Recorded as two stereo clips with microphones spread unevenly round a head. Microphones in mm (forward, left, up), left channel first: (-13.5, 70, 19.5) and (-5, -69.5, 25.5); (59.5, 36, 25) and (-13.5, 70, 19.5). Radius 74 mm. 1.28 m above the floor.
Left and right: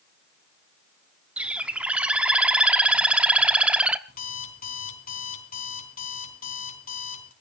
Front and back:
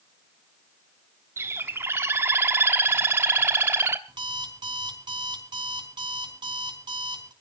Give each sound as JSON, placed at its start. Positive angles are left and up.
{"t": 1.4, "sound": "a bird", "azimuth_deg": -155, "distance_m": 0.8}
{"t": 4.1, "sound": "an alarm clock", "azimuth_deg": 125, "distance_m": 4.5}